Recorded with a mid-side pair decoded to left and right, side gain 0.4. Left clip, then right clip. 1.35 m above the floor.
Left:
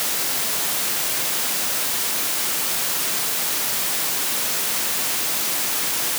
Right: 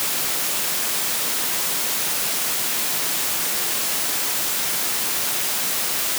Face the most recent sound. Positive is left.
No sound to turn to.